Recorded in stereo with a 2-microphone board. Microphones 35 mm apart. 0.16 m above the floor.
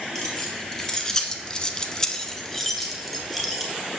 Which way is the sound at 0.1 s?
10° left (ahead or behind).